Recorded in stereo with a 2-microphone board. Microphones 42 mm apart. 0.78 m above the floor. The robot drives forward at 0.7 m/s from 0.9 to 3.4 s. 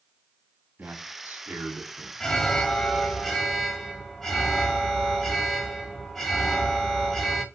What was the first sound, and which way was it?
A man speaking, 50° right (ahead or behind).